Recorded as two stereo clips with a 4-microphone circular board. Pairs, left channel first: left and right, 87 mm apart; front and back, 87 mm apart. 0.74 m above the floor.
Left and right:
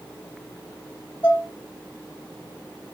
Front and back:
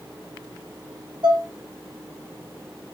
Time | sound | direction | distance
1.2 | dishes clattering | 155° left | 3 m